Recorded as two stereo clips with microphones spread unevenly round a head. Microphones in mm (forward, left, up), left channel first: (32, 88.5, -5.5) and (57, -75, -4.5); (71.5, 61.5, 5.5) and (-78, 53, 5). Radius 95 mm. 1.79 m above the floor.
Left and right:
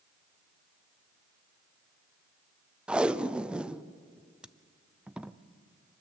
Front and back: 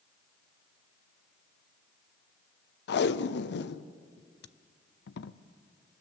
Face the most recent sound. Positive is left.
turn(degrees=5)